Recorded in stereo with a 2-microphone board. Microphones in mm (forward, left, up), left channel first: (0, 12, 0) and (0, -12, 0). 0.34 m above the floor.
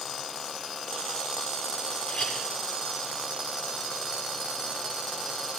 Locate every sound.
2.1 s a clink: 40° left (ahead or behind), 7 m